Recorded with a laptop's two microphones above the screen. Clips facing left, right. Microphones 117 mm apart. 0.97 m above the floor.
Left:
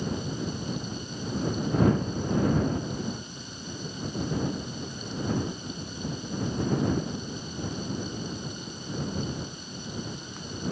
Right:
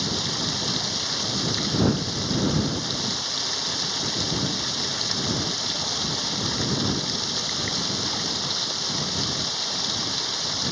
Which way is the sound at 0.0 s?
80° right.